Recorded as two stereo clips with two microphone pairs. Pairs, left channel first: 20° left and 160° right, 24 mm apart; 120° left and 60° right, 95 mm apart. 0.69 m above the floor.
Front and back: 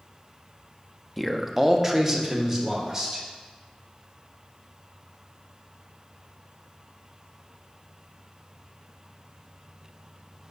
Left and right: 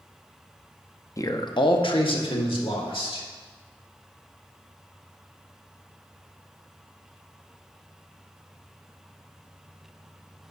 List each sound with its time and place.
1.2 s a man speaking: 110° left, 0.5 m; by 3.3 s 135° left, 2 m